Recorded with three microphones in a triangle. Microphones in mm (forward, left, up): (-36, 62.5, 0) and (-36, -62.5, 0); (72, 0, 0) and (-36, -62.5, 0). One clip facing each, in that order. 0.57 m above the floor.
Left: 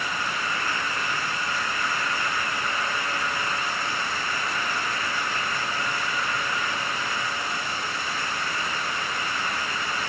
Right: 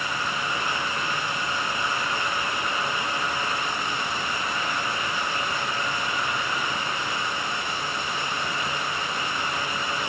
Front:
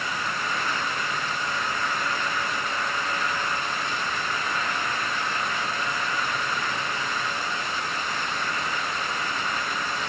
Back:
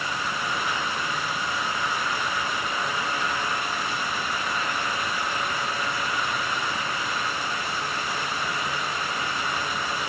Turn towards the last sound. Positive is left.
No sound to turn to.